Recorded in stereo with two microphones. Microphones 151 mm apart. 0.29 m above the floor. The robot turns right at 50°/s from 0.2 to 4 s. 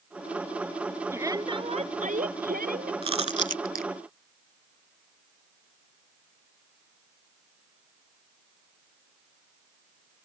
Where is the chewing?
35° right (ahead or behind); by 3.9 s 80° right.